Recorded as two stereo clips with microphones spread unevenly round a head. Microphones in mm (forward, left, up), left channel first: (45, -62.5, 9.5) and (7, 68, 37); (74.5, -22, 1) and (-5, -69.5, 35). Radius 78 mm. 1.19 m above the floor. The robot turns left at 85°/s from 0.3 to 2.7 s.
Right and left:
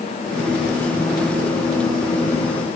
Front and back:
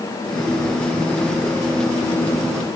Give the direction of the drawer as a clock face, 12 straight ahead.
No drawer in this recording.